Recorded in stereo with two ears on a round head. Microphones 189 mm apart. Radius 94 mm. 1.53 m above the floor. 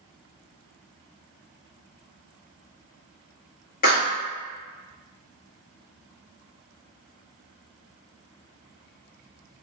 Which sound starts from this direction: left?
A clap, at 3.8 s.